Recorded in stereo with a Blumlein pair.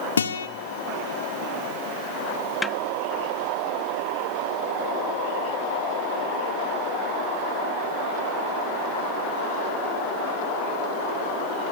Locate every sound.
0.2 s a guitar: 70° left, 1.6 m
2.6 s a snare drum: 10° left, 0.9 m